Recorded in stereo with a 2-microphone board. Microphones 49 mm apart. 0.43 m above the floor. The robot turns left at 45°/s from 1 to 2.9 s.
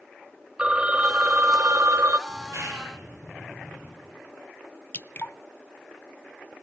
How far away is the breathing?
No breathing in this recording.